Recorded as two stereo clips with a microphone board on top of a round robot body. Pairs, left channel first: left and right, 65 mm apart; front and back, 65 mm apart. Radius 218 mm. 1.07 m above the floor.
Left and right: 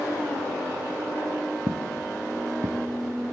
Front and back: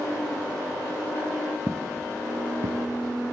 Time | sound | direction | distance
1.7 | footsteps | 135° right | ?